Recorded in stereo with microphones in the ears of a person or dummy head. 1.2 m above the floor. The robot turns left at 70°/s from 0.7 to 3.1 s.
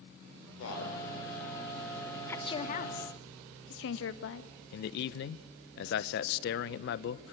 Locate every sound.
0.6 s a man speaking: 75° left (ahead or behind), 5.5 m; by 1.0 s 80° left, 5.5 m
2.3 s a woman speaking: 170° left, 1.6 m; by 4.5 s 110° left, 1.6 m
4.7 s a man speaking: 55° left (ahead or behind), 0.7 m